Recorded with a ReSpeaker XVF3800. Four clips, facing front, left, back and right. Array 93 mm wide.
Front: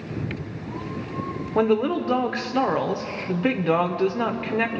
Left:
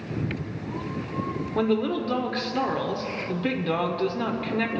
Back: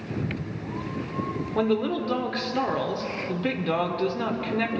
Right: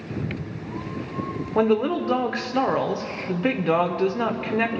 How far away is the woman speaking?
About 0.8 m.